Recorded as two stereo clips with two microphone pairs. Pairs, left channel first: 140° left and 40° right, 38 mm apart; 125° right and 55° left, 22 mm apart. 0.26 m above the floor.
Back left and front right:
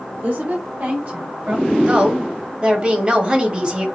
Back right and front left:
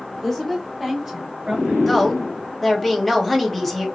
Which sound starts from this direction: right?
A woman speaking, at 1.9 s.